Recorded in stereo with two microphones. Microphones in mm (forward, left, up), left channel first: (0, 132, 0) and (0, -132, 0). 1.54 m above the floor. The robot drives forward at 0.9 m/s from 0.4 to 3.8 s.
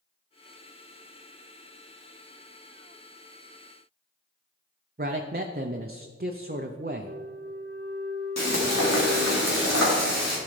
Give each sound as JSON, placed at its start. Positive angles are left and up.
{"t": 5.0, "sound": "a man speaking", "side_deg": -35, "distance_m": 0.5}
{"t": 7.0, "sound": "a flute", "side_deg": -45, "distance_m": 1.3}
{"t": 8.4, "sound": "frying", "side_deg": 75, "distance_m": 2.0}